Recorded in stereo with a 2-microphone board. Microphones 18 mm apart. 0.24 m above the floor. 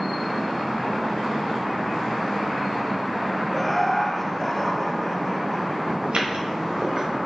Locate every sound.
3.5 s laughter: 10° left (ahead or behind), 1.1 m; by 5.9 s 20° left (ahead or behind), 1.6 m
6.0 s footsteps: 70° right (ahead or behind), 2.5 m; by 7.1 s 45° right (ahead or behind), 3.5 m